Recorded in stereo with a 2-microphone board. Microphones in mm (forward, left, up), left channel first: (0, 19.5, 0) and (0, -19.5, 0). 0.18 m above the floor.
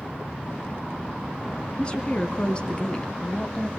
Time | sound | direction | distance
1.8 | a woman speaking | 25° left (ahead or behind) | 2 m